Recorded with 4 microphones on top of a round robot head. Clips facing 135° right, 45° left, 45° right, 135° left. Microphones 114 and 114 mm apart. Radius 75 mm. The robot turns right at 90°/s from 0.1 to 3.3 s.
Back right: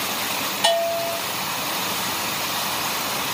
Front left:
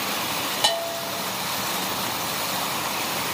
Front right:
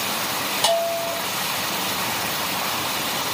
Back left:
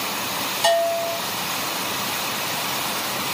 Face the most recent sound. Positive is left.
turn(degrees=-135)